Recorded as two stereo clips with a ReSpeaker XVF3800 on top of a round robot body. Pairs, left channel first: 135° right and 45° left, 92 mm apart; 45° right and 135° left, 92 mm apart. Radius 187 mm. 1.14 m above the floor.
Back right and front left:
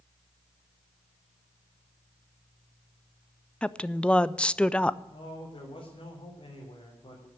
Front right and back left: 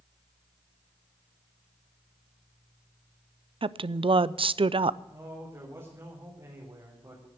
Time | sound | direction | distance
3.6 | a woman speaking | 145° left | 0.6 m
5.1 | a man speaking | 170° right | 3.5 m